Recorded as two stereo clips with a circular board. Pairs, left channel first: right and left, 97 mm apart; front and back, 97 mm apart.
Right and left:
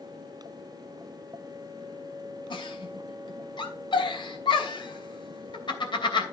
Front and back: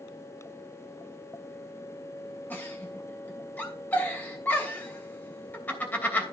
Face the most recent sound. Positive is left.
turn(degrees=-70)